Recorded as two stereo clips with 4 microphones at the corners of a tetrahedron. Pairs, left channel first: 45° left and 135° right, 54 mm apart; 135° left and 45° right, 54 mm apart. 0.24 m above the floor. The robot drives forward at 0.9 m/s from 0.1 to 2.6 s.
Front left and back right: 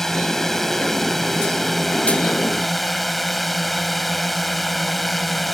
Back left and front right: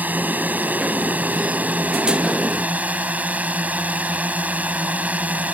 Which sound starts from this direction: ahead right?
A drone, at 0.0 s.